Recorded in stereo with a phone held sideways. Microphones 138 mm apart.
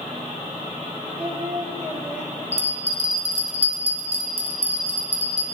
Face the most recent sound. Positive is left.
turn(degrees=-50)  # may be behind; listen again after turning